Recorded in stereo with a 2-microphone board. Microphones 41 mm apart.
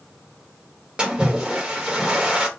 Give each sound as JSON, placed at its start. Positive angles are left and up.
{"t": 1.0, "sound": "a splash", "side_deg": -25, "distance_m": 1.2}